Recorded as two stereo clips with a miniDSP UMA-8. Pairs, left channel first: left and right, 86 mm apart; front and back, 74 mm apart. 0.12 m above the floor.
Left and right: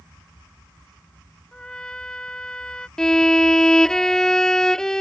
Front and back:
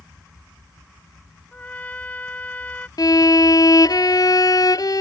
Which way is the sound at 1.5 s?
25° left.